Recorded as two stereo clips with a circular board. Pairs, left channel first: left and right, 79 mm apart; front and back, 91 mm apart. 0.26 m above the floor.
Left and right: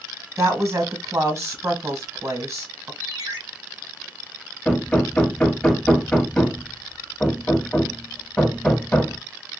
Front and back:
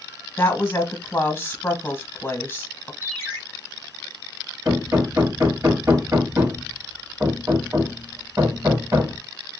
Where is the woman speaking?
60° right, 1.3 m.